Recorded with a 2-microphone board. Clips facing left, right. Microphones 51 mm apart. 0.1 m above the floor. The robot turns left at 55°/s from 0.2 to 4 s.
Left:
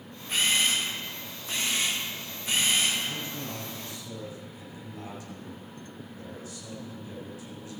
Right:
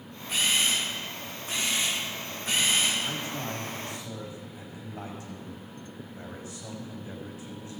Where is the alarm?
No alarm in this recording.